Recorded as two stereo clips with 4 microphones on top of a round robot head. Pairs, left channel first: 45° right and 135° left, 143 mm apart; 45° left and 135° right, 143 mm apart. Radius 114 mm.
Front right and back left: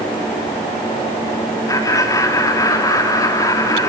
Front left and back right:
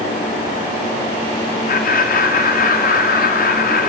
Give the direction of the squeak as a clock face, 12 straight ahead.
No squeak in this recording.